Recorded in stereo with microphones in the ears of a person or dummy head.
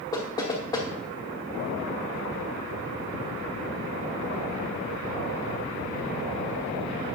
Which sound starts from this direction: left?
Knocking, at 0.1 s.